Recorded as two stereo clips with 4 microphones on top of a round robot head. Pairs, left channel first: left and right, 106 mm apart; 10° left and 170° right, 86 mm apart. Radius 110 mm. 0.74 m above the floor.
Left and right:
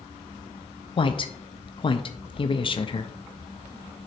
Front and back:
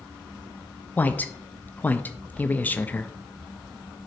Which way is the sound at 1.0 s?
75° left.